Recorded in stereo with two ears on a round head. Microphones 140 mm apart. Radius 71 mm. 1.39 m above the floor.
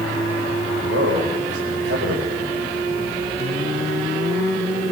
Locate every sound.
0.7 s a man speaking: 85° right, 5.5 m